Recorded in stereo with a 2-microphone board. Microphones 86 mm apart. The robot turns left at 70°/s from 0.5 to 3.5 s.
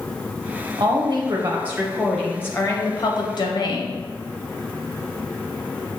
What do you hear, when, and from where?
0.8 s a woman speaking: 90° right, 0.8 m; by 4.0 s 75° left, 0.8 m